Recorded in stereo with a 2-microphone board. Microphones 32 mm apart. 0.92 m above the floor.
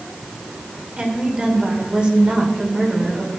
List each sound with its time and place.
1.0 s a woman speaking: 40° right (ahead or behind), 2.5 m